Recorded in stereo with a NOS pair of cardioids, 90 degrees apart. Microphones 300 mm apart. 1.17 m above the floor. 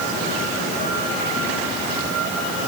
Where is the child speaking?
I don't hear a child speaking.